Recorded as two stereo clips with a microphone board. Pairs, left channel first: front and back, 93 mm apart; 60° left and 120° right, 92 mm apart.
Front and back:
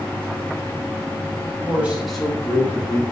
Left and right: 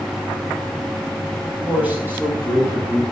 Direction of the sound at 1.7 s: 170° right.